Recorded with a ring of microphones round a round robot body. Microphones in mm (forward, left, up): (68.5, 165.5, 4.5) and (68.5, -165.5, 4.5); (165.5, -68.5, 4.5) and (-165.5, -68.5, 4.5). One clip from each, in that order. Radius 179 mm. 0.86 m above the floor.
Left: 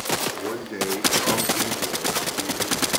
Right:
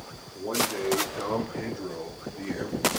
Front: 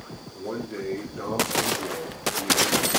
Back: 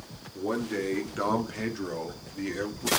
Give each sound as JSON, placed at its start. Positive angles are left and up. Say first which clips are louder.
{"t": 0.3, "sound": "a man speaking", "louder": "even, back 2 dB", "azimuth_deg": 130, "distance_m": 2.5}